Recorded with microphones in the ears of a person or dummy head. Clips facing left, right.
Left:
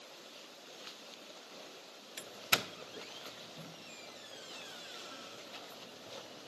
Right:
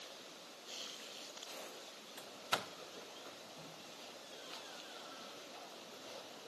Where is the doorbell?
35° left (ahead or behind), 0.6 m.